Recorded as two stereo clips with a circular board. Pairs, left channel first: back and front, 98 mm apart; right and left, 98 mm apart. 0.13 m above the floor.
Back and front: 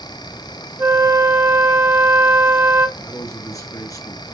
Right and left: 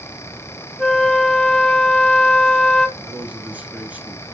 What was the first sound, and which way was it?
A flute, 15° right.